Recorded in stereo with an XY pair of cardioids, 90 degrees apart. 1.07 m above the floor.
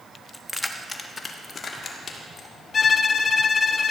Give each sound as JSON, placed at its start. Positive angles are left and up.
{"t": 0.3, "sound": "keys jangling", "azimuth_deg": 10, "distance_m": 1.1}
{"t": 2.7, "sound": "a violin", "azimuth_deg": 50, "distance_m": 0.7}